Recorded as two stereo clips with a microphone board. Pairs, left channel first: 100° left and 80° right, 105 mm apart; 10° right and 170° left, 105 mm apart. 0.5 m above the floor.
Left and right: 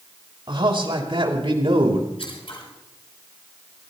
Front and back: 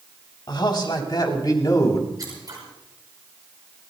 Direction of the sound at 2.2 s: 120° left.